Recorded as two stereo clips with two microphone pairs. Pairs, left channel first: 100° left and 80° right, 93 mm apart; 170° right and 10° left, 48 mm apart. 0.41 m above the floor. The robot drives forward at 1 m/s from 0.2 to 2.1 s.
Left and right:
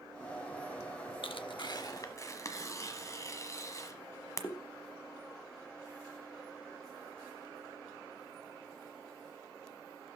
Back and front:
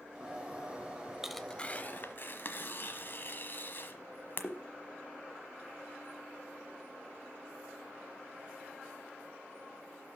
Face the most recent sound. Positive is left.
turn(degrees=150)